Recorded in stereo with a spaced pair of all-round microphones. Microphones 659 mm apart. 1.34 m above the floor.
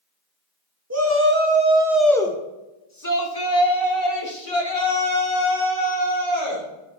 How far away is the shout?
About 1.8 m.